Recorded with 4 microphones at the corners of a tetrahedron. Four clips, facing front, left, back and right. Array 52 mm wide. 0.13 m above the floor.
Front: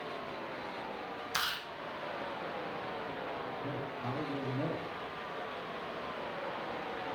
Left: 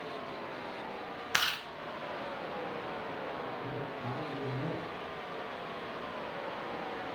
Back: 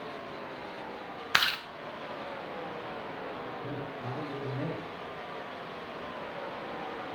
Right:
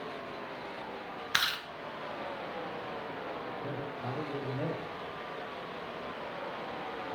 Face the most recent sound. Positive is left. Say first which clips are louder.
# right 1 dB, back 1 dB
turn(degrees=-100)